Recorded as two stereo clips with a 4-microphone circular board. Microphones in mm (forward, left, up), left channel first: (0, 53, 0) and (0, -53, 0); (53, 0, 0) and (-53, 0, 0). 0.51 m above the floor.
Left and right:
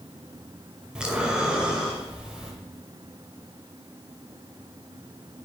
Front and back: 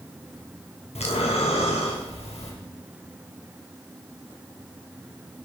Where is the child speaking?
No child speaking in this recording.